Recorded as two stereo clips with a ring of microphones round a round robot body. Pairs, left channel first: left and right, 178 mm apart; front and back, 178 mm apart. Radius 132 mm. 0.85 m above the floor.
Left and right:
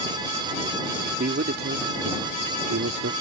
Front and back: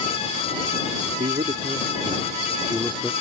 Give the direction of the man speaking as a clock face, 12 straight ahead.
4 o'clock.